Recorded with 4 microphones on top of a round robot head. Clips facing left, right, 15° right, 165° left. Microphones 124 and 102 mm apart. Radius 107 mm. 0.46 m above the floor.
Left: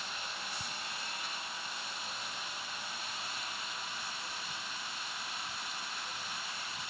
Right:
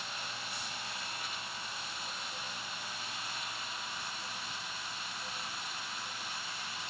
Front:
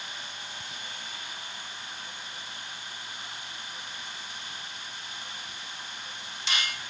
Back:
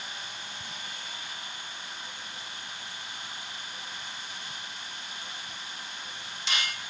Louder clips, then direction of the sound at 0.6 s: Left 1 dB, front 1 dB; 85° left.